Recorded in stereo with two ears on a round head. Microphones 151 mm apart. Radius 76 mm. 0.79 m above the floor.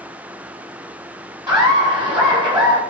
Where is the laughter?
15° right (ahead or behind), 1.4 m.